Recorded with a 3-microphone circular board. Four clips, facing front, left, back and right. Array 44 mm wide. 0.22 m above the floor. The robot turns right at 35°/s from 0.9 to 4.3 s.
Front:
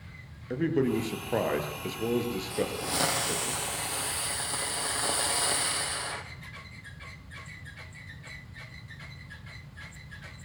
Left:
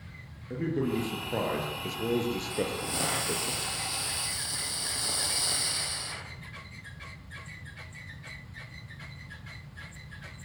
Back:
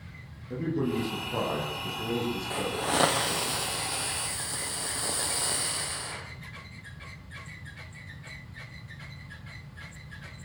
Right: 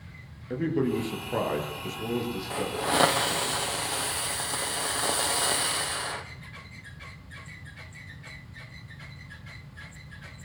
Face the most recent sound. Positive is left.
turn(degrees=-70)